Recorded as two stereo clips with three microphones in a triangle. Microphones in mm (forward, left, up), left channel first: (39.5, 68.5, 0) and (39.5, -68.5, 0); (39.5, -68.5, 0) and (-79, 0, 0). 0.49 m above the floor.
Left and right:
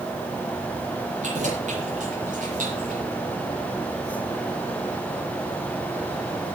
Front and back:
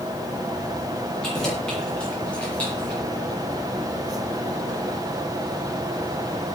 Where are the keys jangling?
115° right, 8.5 m; by 3.0 s 110° right, 6.5 m.